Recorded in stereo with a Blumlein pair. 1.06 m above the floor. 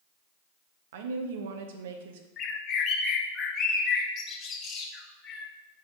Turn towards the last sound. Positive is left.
turn(degrees=25)